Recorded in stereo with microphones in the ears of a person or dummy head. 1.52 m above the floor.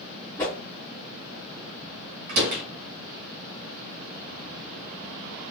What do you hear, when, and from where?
0.4 s a whoosh: 15° left (ahead or behind), 2.0 m
2.3 s a door slam: 45° right (ahead or behind), 1.6 m